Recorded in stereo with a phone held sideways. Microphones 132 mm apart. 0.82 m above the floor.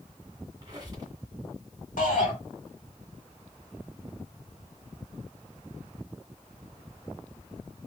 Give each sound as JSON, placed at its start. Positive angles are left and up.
{"t": 0.6, "sound": "a squeak", "side_deg": -30, "distance_m": 1.4}
{"t": 2.0, "sound": "a shout", "side_deg": 75, "distance_m": 2.0}